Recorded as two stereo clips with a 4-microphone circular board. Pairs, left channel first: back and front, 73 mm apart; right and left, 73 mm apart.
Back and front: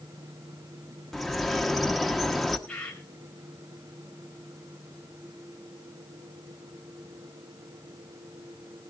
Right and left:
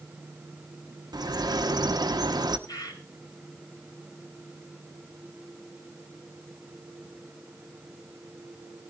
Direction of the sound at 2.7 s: 105° right.